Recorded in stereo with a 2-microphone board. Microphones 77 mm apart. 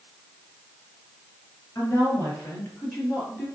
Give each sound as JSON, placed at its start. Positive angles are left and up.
{"t": 1.8, "sound": "a woman speaking", "side_deg": 35, "distance_m": 4.0}